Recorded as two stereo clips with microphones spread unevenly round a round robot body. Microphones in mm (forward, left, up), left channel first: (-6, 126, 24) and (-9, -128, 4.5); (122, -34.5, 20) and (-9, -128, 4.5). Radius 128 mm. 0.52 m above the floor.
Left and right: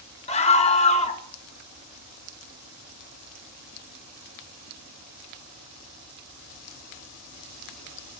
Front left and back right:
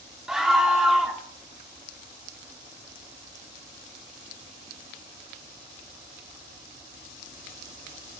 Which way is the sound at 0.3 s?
140° left.